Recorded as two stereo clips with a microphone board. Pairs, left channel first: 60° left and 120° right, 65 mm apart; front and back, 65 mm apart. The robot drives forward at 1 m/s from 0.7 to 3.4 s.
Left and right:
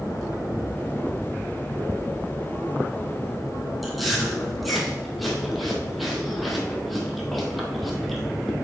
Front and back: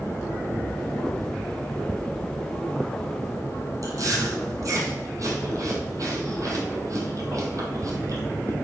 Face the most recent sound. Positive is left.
turn(degrees=150)